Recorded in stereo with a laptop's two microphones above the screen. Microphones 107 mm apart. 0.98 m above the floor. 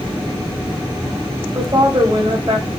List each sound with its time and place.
1.6 s a woman speaking: 40° right (ahead or behind), 4 m